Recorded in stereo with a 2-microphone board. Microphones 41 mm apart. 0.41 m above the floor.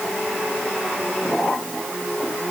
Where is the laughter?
No laughter in this recording.